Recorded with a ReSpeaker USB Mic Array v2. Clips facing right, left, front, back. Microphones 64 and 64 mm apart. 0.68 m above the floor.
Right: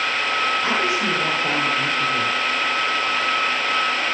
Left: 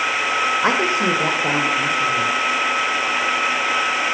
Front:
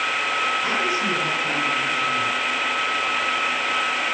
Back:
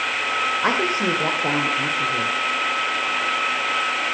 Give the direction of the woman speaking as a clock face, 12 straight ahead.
7 o'clock.